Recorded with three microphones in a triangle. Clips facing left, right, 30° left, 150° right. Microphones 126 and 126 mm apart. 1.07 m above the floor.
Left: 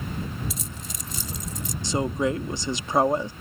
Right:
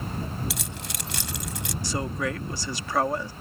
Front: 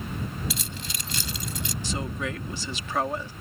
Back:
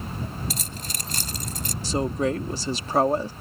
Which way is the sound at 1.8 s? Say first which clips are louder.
Left 5 dB, back 9 dB; 160° left.